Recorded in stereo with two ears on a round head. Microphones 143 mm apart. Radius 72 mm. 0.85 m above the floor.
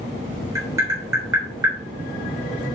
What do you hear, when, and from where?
0.6 s tapping: 15° right (ahead or behind), 3.5 m